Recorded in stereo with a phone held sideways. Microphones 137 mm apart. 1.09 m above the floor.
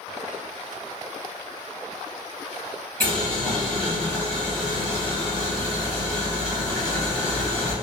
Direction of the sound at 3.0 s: 20° left (ahead or behind).